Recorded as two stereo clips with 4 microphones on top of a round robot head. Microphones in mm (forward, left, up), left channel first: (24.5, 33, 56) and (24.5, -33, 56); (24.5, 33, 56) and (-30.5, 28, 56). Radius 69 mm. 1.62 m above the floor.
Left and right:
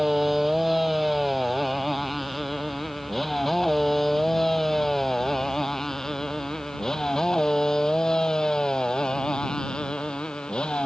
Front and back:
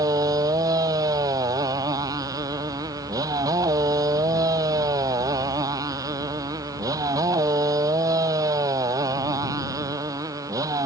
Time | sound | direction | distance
0.0 | a motorcycle | straight behind | ?